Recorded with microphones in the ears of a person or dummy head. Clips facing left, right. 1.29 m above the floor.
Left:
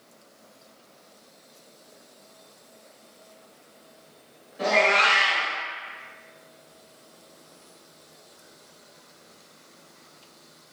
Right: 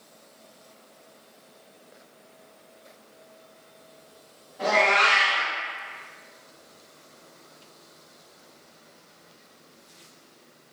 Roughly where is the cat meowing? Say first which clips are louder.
Left 1 dB; left.